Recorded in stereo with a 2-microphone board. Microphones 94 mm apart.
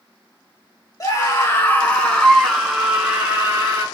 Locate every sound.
1.0 s a scream: 40° left (ahead or behind), 1.3 m; by 3.9 s 25° right (ahead or behind), 1.6 m